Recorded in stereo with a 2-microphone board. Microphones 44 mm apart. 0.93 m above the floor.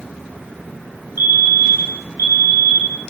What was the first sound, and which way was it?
A fire alarm, 65° right (ahead or behind).